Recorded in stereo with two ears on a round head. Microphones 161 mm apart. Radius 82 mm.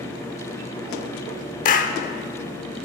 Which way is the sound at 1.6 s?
45° left (ahead or behind).